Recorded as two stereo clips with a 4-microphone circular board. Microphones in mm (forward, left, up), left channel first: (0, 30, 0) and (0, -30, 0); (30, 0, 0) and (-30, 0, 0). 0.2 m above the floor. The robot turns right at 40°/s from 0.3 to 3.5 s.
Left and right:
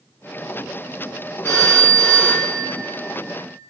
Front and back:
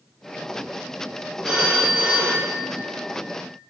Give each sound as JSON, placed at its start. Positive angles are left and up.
{"t": 1.4, "sound": "a phone ringing", "azimuth_deg": 95, "distance_m": 3.0}